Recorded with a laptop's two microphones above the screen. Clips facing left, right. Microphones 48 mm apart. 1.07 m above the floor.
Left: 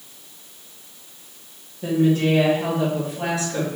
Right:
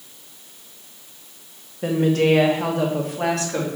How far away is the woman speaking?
About 0.6 m.